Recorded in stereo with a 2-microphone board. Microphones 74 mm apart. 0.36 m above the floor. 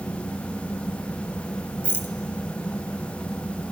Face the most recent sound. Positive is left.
turn(degrees=30)  # may be behind; listen again after turning